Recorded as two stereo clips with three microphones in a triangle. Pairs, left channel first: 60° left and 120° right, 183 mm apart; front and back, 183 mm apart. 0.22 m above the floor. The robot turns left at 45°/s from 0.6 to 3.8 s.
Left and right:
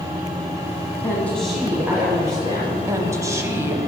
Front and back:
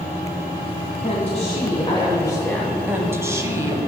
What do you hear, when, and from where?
1.0 s a woman speaking: 5° right, 1.4 m; by 2.8 s 85° right, 1.4 m
2.9 s a woman speaking: 130° right, 1.0 m; by 3.8 s 170° right, 1.0 m